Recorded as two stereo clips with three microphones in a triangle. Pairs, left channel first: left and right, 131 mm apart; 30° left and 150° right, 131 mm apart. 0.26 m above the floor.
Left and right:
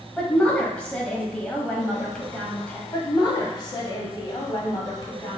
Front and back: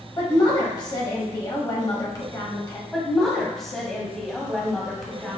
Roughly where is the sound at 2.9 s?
Behind left.